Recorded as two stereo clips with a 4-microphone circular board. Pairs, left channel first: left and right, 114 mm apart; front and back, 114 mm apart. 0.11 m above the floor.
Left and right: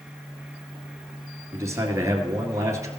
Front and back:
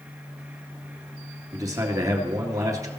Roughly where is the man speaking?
Behind right.